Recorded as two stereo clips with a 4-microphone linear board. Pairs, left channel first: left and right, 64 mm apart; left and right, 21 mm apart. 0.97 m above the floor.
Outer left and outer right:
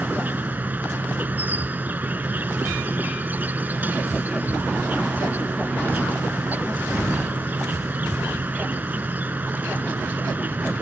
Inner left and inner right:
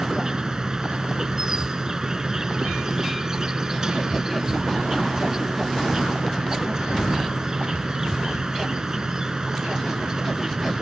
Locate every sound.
0.0 s an insect: 30° right (ahead or behind)